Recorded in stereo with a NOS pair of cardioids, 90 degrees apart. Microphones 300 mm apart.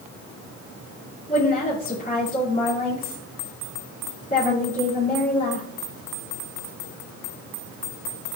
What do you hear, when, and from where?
1.3 s a woman speaking: 25° left, 4.5 m